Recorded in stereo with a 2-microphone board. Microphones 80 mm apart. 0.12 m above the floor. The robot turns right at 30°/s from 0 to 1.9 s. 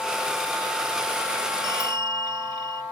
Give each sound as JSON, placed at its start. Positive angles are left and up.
{"t": 1.6, "sound": "a bell", "side_deg": -75}